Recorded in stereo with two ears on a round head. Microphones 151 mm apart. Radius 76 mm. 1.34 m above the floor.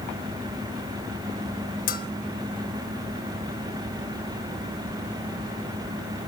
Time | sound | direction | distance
1.9 | a bell | 55° left (ahead or behind) | 1.1 m